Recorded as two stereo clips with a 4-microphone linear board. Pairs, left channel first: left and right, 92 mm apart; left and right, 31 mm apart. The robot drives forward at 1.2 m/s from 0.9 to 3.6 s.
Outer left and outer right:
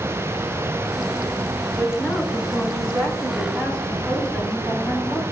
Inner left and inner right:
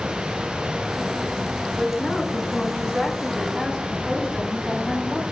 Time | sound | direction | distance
1.8 | a woman speaking | 15° left (ahead or behind) | 5 m